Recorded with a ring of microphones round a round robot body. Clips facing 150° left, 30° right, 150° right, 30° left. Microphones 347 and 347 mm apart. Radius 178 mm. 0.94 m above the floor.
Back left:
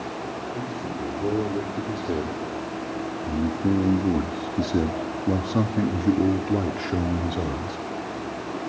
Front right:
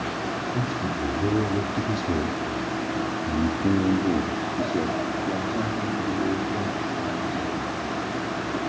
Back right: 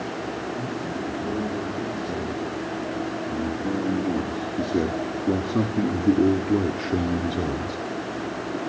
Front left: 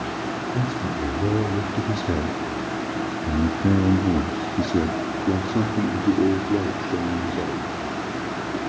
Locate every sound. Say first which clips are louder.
0.5 s a man speaking: front right 2 dB, front left 3 dB; 20° left, 2.5 m; by 7.8 s 145° left, 2.5 m